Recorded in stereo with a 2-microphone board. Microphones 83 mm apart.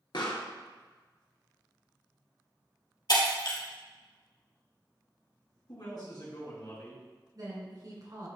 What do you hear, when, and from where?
0.1 s a pop: 70° left (ahead or behind), 1.4 m
3.1 s breaking glass: 60° left (ahead or behind), 3 m
5.7 s a man speaking: 60° left (ahead or behind), 3 m
7.3 s a woman speaking: 50° right (ahead or behind), 2.5 m